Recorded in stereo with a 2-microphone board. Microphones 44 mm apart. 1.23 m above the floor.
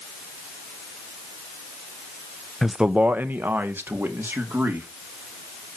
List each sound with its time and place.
2.6 s a man speaking: centre (ahead or behind), 0.6 m; by 4.9 s 65° right (ahead or behind), 3.5 m